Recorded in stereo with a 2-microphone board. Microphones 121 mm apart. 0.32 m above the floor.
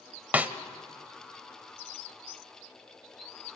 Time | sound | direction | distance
0.3 | a snare drum | 15° right (ahead or behind) | 0.8 m